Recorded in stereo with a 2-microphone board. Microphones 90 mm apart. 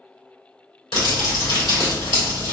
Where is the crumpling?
85° left, 1.9 m.